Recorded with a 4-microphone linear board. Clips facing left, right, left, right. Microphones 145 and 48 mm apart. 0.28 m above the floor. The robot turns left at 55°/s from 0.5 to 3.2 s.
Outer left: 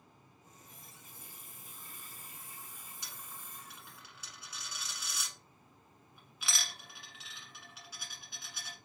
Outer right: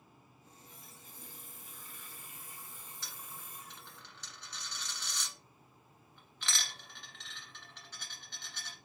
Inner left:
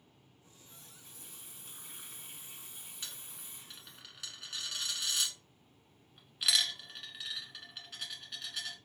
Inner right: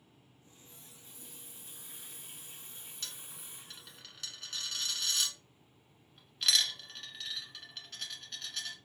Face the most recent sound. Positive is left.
turn(degrees=10)  # may be behind; listen again after turning